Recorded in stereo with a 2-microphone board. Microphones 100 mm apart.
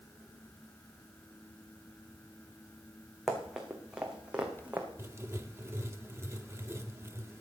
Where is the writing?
25° right (ahead or behind), 0.8 m.